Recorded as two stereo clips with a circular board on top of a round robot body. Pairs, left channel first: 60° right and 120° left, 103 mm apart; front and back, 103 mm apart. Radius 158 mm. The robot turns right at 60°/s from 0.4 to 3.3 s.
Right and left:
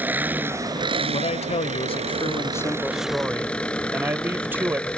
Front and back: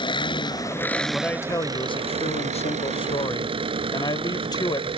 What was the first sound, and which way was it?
An engine running, 45° left.